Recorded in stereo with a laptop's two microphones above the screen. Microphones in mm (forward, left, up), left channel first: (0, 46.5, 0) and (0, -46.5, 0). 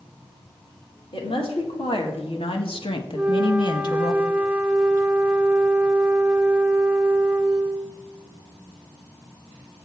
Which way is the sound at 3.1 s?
15° right (ahead or behind).